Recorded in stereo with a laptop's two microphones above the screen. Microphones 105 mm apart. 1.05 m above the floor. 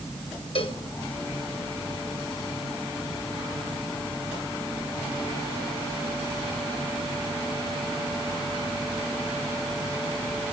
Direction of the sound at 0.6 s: 60° left (ahead or behind).